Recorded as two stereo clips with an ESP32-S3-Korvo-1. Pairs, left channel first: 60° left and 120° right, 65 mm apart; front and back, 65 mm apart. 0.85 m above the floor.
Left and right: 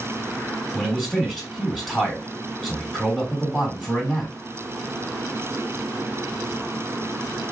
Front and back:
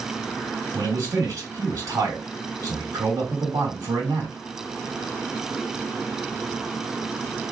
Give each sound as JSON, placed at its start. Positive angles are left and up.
{"t": 0.7, "sound": "a man speaking", "azimuth_deg": 150, "distance_m": 1.9}